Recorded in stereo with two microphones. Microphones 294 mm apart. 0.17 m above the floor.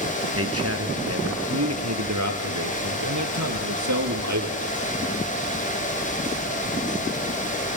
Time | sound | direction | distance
0.3 | a man speaking | 50° right (ahead or behind) | 2.5 m